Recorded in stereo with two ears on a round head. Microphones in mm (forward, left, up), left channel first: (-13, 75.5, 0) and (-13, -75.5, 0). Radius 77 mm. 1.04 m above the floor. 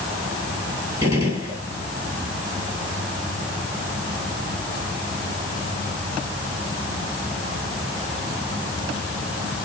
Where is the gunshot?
15° right (ahead or behind), 7.5 m.